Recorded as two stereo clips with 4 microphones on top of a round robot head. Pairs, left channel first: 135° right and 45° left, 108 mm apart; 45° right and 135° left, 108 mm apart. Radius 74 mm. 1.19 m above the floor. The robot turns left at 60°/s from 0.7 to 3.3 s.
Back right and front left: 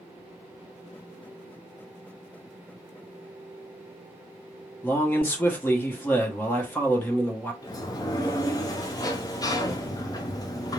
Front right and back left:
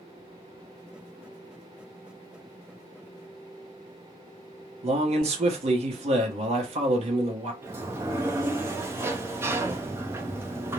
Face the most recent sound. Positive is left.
turn(degrees=-170)